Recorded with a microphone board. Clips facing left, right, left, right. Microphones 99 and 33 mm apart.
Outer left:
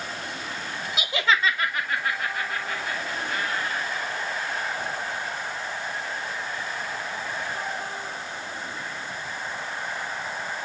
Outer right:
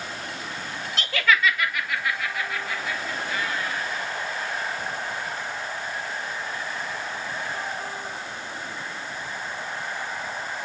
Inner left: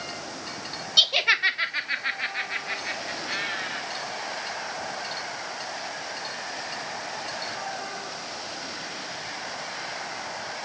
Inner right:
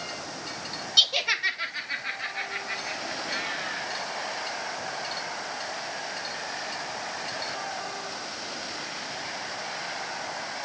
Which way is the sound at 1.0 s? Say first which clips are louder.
Outer right 1 dB, inner left 3 dB; 10° left (ahead or behind).